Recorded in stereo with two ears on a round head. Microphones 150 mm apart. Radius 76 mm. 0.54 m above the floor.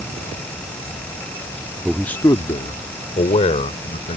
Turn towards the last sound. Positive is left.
turn(degrees=40)  # may be behind; listen again after turning